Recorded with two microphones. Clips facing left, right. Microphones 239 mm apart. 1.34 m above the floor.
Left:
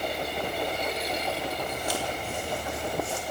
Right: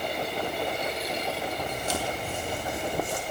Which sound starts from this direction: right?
Footsteps, at 1.7 s.